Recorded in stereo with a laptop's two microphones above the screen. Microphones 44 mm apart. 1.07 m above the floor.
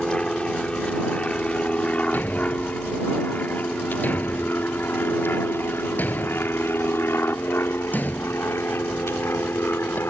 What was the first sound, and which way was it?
An aircraft, 20° left (ahead or behind).